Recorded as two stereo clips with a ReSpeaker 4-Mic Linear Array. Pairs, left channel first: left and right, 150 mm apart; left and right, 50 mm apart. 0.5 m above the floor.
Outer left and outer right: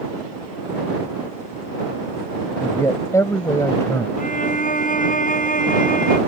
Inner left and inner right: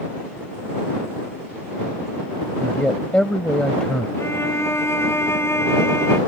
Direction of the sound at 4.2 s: 65° left (ahead or behind).